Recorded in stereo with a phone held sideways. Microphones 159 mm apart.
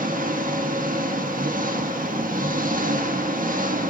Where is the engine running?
65° right (ahead or behind), 1.1 m.